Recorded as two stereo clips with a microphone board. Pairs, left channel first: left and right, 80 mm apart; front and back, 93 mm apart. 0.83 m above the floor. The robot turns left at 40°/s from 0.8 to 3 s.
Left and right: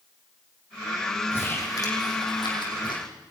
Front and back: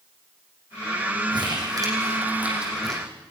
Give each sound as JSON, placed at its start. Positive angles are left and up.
{"t": 1.3, "sound": "crumpling", "azimuth_deg": 155, "distance_m": 7.0}